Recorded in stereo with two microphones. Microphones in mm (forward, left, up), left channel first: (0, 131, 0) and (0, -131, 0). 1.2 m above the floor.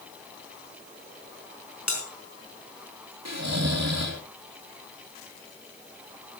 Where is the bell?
80° left, 5 m.